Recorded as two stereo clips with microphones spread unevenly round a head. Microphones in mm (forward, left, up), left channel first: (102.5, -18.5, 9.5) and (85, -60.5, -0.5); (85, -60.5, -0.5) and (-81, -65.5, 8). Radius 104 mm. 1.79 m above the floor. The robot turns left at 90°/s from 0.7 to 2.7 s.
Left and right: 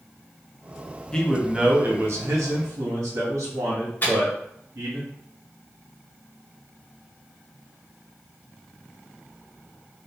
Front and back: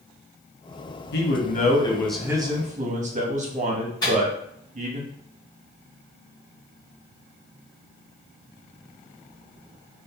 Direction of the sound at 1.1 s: Straight ahead.